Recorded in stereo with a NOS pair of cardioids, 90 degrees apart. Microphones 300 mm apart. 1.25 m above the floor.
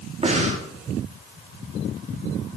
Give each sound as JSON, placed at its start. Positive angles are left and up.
{"t": 0.2, "sound": "breathing", "azimuth_deg": -20, "distance_m": 1.7}